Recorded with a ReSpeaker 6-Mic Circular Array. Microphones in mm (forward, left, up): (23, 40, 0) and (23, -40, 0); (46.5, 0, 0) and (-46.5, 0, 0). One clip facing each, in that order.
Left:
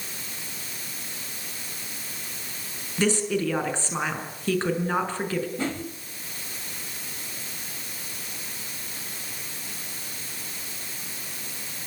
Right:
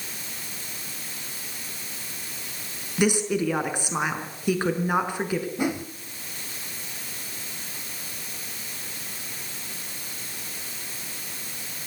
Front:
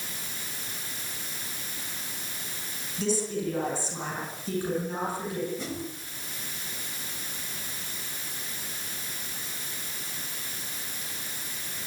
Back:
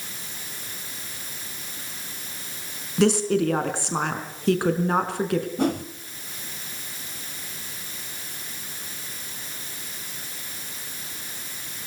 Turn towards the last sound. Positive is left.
turn(degrees=-165)